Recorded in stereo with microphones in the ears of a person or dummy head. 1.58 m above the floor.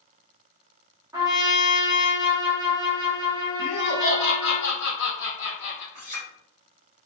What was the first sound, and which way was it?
A trumpet, 20° right (ahead or behind).